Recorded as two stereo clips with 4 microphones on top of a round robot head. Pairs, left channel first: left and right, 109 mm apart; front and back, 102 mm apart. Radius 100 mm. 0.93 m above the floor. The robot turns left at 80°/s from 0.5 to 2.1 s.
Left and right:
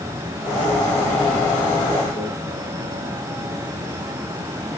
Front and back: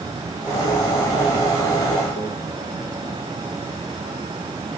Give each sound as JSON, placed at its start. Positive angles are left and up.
{"t": 2.2, "sound": "a microwave", "azimuth_deg": 20, "distance_m": 8.5}